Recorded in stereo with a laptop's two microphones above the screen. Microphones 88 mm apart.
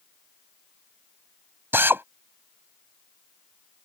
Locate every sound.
1.7 s a drill: 25° right (ahead or behind)